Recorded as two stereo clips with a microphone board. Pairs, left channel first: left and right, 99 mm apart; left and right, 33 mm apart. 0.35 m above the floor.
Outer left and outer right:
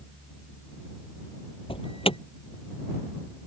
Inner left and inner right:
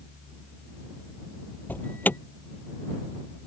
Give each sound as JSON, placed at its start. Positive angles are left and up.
{"t": 1.7, "sound": "an alarm", "side_deg": 70}